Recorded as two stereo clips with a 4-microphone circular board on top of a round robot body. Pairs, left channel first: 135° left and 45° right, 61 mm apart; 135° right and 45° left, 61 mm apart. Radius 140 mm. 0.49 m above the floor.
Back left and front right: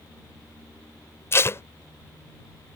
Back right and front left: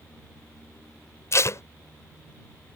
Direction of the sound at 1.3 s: 175° right.